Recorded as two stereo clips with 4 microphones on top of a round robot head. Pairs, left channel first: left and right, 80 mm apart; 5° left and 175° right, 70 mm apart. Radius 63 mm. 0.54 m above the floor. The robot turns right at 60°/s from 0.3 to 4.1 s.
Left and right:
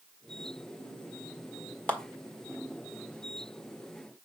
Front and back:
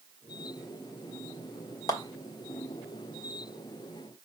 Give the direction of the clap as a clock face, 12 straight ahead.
11 o'clock.